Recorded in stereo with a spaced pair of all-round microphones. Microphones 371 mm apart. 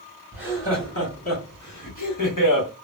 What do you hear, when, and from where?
0.3 s laughter: 25° left (ahead or behind), 1.4 m; by 2.7 s 60° left (ahead or behind), 1.4 m